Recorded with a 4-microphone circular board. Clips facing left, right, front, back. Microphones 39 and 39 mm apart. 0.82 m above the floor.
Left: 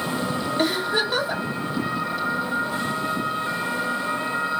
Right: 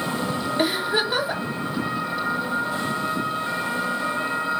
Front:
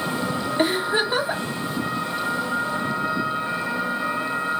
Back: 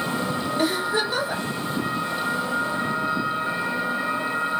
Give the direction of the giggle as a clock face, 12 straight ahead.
1 o'clock.